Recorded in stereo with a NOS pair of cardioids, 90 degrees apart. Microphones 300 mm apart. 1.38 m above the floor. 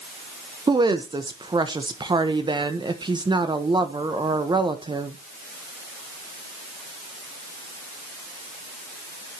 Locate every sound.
0.7 s a woman speaking: 15° right, 1.3 m